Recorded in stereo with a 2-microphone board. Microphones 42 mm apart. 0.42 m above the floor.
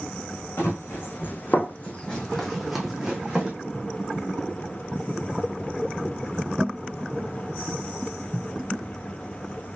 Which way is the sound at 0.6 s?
70° left (ahead or behind).